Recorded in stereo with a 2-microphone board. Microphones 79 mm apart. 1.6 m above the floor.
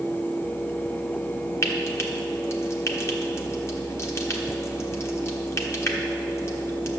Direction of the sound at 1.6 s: 35° left (ahead or behind).